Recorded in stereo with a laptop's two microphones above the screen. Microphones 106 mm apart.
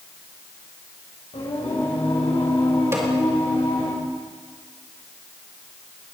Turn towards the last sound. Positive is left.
turn(degrees=-25)  # may be behind; listen again after turning